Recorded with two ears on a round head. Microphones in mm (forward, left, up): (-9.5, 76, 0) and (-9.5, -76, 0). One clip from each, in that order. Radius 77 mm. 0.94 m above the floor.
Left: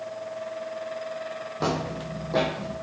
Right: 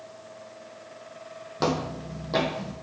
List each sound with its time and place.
1.6 s footsteps: 60° right (ahead or behind), 1.8 m